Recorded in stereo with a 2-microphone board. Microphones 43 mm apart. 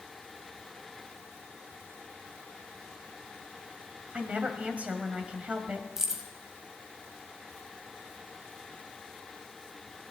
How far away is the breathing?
I don't hear breathing.